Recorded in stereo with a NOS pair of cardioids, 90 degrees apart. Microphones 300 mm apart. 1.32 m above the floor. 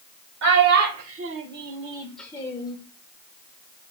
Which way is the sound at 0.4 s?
70° right.